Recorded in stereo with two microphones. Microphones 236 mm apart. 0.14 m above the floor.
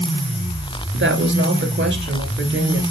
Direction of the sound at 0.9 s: 55° right (ahead or behind).